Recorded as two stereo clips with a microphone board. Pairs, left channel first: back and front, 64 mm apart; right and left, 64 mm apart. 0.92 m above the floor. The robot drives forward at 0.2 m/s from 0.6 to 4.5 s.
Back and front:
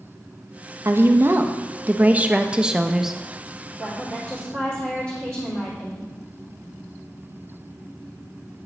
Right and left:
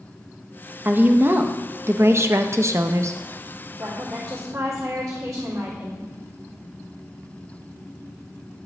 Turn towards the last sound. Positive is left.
turn(degrees=125)